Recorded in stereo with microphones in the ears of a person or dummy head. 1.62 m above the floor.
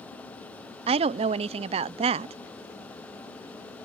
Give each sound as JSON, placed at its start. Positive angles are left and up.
{"t": 0.9, "sound": "a woman speaking", "side_deg": -40}